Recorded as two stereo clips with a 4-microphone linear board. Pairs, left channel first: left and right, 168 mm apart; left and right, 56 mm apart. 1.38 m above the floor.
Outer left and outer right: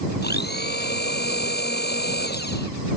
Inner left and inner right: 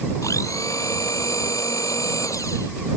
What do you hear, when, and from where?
0.2 s a blender: 75° left (ahead or behind)